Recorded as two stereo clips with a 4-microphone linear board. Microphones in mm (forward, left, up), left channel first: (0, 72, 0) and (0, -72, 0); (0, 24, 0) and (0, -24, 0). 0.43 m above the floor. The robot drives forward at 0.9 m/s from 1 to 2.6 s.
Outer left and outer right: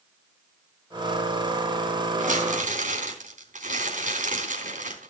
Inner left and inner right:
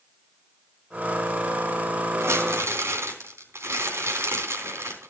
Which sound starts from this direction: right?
Crumpling, at 2.2 s.